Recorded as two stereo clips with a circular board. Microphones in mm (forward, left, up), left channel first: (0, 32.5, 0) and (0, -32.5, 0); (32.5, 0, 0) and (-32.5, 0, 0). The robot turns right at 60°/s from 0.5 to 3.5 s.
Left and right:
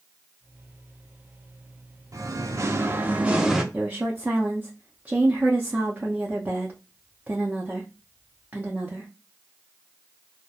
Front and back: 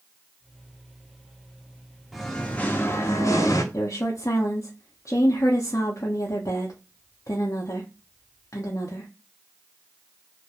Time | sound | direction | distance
2.1 | singing | 90° right | 0.5 m
3.7 | a woman speaking | 25° right | 0.5 m